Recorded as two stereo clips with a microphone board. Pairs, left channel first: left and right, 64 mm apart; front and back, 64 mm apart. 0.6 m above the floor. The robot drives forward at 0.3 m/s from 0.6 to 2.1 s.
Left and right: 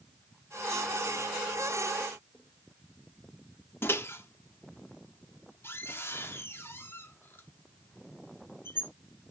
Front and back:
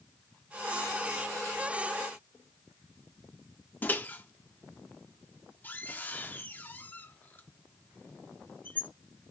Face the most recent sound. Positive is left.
turn(degrees=55)